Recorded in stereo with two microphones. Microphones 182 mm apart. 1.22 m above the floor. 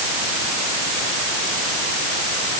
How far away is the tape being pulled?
I don't hear tape being pulled.